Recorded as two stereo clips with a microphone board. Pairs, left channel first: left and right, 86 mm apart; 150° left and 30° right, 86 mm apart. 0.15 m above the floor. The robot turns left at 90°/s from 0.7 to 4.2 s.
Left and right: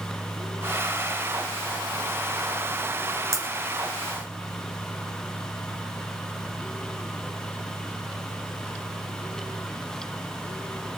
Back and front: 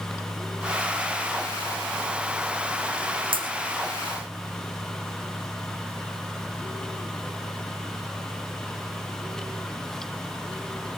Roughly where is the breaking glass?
Ahead right.